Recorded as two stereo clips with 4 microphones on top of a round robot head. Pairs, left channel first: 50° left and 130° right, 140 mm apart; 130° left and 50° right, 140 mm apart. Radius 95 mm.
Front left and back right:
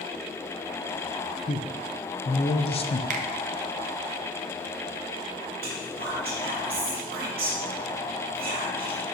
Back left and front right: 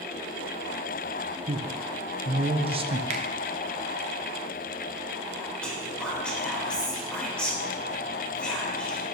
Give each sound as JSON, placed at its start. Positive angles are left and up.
{"t": 1.5, "sound": "a man speaking", "azimuth_deg": 0, "distance_m": 0.7}
{"t": 3.1, "sound": "a finger snap", "azimuth_deg": -95, "distance_m": 0.8}
{"t": 5.6, "sound": "whispering", "azimuth_deg": -145, "distance_m": 1.9}